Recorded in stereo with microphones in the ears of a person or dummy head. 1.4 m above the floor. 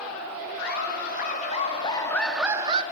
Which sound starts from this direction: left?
Laughter, at 0.6 s.